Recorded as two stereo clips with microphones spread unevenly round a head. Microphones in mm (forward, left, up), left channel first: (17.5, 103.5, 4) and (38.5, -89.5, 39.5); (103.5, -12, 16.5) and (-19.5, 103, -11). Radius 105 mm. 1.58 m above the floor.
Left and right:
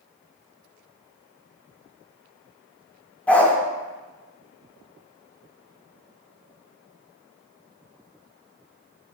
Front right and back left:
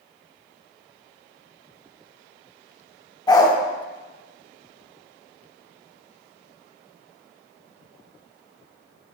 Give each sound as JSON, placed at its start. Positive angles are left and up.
{"t": 3.3, "sound": "a dog barking", "azimuth_deg": 5, "distance_m": 1.6}